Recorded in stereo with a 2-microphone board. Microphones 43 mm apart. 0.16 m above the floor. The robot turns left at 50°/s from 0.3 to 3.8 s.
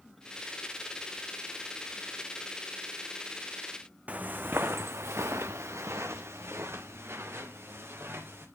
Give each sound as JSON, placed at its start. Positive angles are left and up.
{"t": 4.1, "sound": "footsteps", "side_deg": -35, "distance_m": 0.6}